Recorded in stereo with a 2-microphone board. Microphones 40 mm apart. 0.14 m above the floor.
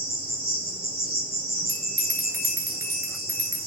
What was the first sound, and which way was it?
An insect, 10° right (ahead or behind).